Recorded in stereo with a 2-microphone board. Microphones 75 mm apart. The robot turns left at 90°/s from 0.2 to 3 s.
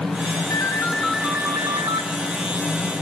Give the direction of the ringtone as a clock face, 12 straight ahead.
10 o'clock.